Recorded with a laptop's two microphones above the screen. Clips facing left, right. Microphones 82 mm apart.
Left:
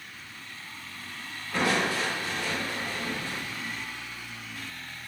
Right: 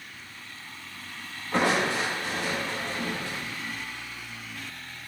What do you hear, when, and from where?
1.5 s crushing: 75° right (ahead or behind), 1.8 m